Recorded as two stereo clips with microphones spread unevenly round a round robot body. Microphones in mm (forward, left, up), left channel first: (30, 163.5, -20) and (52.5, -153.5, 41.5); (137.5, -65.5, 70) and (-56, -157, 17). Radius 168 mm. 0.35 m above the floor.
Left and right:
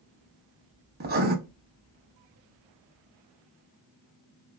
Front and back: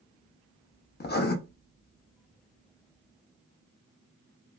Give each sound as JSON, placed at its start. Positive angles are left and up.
{"t": 1.0, "sound": "writing", "azimuth_deg": -25, "distance_m": 0.6}